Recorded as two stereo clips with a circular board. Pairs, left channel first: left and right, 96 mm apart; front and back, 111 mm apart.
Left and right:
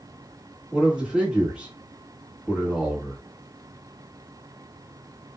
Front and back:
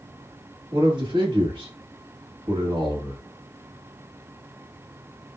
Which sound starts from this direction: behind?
A man speaking, at 0.7 s.